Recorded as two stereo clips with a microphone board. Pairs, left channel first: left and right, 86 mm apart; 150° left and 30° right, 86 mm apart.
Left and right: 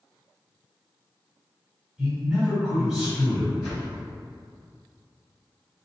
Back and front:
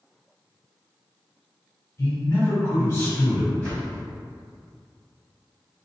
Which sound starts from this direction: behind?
A man speaking, at 2.0 s.